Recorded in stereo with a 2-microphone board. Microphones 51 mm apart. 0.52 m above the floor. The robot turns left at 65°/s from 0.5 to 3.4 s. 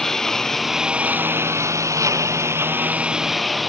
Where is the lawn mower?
10° left; by 3.7 s straight behind.